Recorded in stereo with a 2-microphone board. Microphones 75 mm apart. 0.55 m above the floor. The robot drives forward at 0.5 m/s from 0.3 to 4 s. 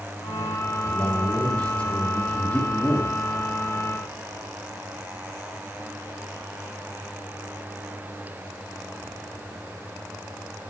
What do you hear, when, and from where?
0.8 s a man speaking: 15° left (ahead or behind), 3 m; by 3.1 s 20° left (ahead or behind), 2 m